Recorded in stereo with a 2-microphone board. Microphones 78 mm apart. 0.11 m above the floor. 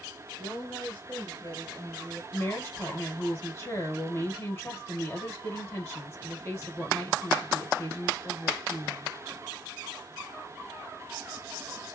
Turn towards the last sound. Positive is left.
turn(degrees=25)  # may be behind; listen again after turning